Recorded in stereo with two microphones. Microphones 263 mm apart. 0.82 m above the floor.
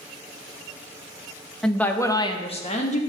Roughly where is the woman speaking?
Centre.